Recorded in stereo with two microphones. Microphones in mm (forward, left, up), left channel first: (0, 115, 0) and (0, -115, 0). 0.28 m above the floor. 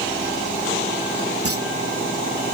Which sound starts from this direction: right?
A clunk, at 1.4 s.